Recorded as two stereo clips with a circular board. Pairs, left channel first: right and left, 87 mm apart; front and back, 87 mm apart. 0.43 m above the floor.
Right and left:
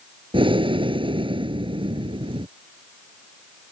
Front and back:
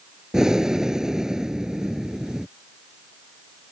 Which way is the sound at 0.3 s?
95° left.